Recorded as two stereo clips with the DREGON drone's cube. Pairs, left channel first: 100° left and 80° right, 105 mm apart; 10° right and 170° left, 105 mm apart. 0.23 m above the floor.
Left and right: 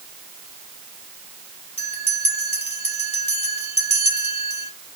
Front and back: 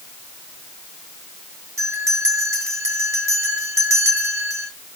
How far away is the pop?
I don't hear a pop.